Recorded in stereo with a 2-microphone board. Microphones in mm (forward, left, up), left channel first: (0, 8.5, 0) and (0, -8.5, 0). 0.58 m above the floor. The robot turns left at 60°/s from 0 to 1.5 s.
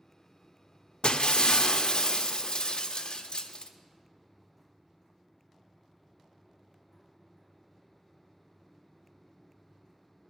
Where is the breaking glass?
75° left (ahead or behind), 0.5 m; by 3.7 s 65° left (ahead or behind), 0.5 m.